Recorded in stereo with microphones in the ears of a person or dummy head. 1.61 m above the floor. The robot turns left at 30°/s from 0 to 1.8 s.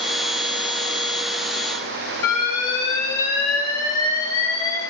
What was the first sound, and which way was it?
An alarm, 20° left (ahead or behind).